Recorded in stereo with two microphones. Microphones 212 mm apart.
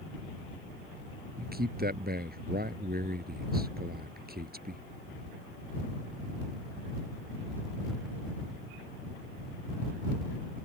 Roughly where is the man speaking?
Right.